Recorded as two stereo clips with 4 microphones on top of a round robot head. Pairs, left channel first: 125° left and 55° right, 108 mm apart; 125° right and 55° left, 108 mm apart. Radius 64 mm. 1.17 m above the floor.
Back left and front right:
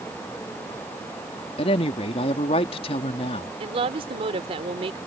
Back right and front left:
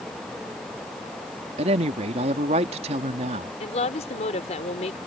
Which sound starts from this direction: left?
A woman speaking, at 1.6 s.